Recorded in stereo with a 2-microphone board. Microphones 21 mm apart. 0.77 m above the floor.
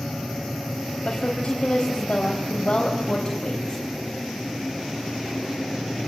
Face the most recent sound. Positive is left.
turn(degrees=40)  # may be behind; listen again after turning